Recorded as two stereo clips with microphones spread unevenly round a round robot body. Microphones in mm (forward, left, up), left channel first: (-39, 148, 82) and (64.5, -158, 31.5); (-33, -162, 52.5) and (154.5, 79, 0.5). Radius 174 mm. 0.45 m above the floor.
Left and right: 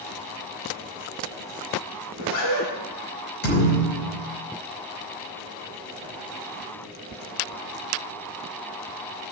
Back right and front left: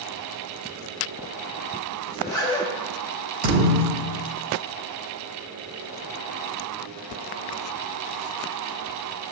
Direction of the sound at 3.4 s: 80° left.